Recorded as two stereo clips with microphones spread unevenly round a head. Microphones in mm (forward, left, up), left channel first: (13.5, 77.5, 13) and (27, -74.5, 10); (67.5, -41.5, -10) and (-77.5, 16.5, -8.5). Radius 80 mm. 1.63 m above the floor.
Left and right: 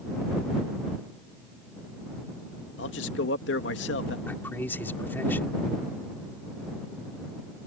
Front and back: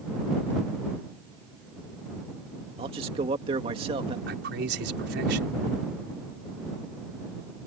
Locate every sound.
2.8 s a man speaking: 100° left
4.3 s a man speaking: 175° left